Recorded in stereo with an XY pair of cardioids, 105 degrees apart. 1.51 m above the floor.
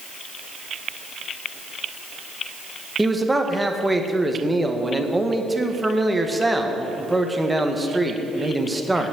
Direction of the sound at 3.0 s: 10° right.